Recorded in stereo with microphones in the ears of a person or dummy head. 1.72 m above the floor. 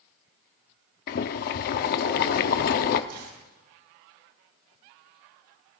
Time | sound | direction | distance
1.1 | boiling | 50° left (ahead or behind) | 0.7 m
3.1 | a dropped coin | 55° right (ahead or behind) | 9.5 m